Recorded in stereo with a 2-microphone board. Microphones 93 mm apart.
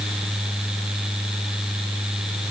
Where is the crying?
I don't hear crying.